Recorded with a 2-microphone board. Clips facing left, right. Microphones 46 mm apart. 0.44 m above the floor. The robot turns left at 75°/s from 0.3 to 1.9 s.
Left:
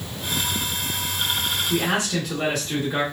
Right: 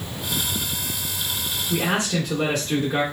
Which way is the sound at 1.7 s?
Centre (ahead or behind).